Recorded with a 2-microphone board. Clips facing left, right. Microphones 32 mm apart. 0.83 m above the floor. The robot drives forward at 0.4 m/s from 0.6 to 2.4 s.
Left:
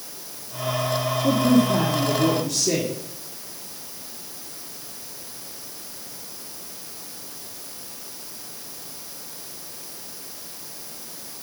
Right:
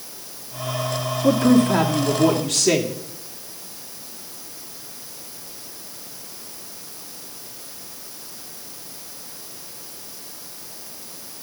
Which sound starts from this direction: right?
A woman speaking, at 1.2 s.